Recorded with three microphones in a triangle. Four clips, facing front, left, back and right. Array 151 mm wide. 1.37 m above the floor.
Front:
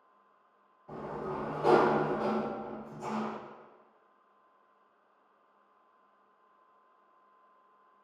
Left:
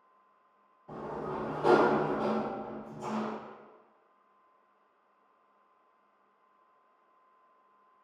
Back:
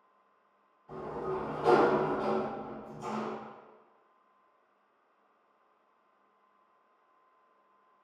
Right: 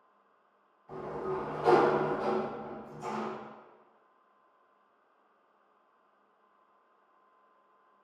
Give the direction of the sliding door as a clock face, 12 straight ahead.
10 o'clock.